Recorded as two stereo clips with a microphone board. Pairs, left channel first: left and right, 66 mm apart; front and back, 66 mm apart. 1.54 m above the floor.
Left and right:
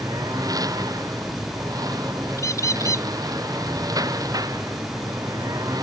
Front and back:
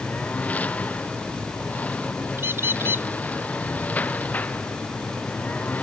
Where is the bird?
125° left.